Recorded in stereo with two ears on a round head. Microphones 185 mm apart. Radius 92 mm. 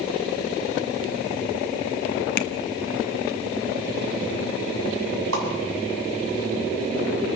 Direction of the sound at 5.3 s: 75° right (ahead or behind).